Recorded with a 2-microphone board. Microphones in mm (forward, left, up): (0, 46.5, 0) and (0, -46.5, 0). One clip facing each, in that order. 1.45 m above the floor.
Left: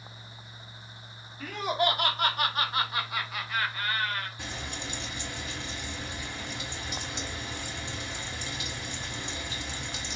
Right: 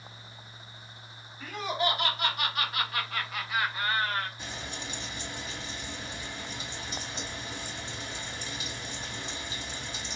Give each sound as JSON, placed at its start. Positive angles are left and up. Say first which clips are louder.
{"t": 1.4, "sound": "laughter", "louder": "left 3 dB", "side_deg": 60, "distance_m": 1.3}
{"t": 4.4, "sound": "frying", "louder": "left 1 dB", "side_deg": 65, "distance_m": 2.5}